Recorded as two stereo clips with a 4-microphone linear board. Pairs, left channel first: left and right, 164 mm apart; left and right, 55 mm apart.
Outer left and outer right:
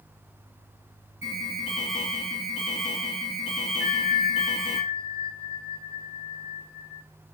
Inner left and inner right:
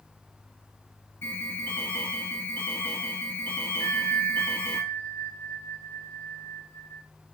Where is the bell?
55° left (ahead or behind), 1.9 m.